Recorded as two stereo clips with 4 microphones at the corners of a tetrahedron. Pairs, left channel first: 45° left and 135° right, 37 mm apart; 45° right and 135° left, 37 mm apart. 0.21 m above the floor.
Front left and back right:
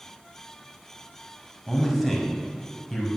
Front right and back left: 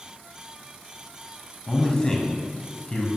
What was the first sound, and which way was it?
A man speaking, 40° right.